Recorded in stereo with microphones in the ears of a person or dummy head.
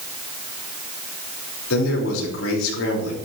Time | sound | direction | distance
1.7 | a man speaking | 70° left (ahead or behind) | 5 m